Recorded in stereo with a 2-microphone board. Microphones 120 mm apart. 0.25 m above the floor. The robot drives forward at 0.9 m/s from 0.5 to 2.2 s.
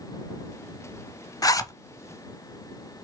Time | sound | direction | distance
1.4 | a zipper | 30° left (ahead or behind) | 0.6 m